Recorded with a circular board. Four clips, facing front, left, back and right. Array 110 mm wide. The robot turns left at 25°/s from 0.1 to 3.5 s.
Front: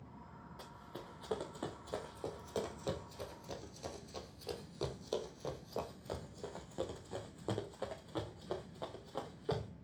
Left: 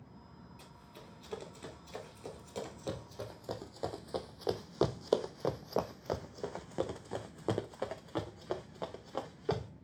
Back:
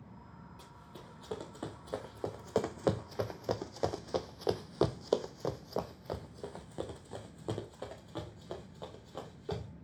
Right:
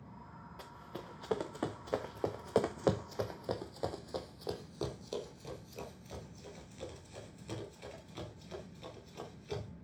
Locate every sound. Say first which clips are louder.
0.6 s running footsteps: right 7 dB, front 2 dB; 60° right, 2.5 m; by 9.7 s 80° left, 3.5 m